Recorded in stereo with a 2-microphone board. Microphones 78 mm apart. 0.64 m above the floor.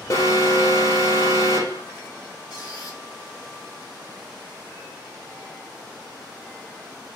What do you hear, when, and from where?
0.1 s an alarm: 45° left (ahead or behind), 1.1 m
2.5 s a squeak: 60° left (ahead or behind), 2.5 m